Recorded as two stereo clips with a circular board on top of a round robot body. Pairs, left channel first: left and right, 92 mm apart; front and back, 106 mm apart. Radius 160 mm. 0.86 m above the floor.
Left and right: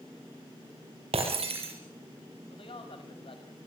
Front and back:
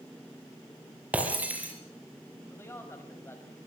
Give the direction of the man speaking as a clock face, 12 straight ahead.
10 o'clock.